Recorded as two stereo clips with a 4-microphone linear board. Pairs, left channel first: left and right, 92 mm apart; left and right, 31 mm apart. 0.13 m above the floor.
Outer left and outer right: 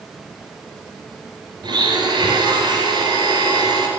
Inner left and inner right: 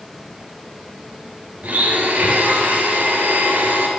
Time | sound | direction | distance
1.6 | a blender | 55° right (ahead or behind) | 2.5 m